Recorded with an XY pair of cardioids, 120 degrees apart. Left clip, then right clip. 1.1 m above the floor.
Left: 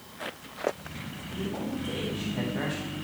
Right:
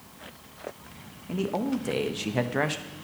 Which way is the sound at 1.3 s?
60° right.